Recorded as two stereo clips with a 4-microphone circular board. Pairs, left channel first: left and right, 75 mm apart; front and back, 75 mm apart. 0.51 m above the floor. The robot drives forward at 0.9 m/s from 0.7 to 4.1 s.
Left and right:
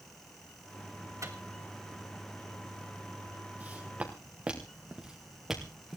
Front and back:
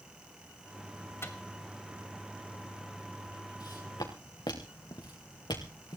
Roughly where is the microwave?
Ahead right.